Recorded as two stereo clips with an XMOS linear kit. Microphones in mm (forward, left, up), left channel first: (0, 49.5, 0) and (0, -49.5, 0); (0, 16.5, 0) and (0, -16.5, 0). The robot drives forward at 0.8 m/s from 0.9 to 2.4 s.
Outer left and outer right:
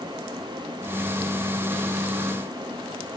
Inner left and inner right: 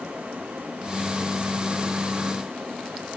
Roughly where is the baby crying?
I don't hear a baby crying.